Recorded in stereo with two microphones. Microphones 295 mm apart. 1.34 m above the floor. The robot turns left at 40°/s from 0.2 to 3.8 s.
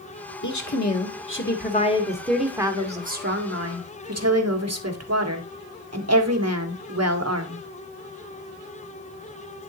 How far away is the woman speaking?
About 1.6 m.